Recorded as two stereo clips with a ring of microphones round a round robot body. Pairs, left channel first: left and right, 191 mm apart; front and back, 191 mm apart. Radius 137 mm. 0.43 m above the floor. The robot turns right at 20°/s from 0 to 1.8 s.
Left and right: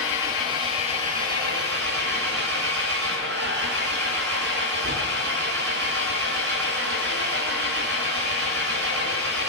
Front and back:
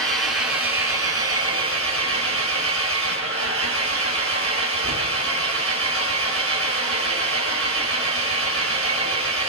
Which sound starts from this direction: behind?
An engine running, at 0.0 s.